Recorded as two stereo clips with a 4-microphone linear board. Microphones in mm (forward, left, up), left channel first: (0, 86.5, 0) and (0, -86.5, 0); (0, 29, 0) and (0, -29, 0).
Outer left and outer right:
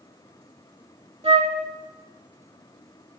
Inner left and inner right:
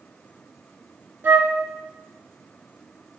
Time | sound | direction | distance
1.2 | a flute | 35° right (ahead or behind) | 0.7 m